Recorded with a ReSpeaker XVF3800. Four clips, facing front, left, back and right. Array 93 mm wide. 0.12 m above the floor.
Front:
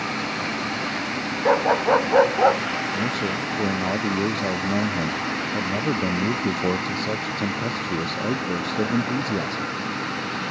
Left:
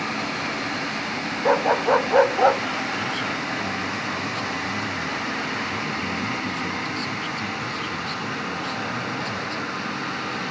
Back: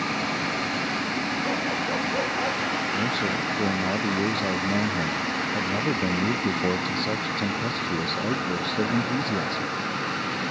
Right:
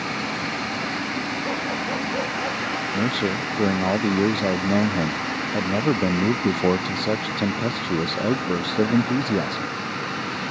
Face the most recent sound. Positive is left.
turn(degrees=-80)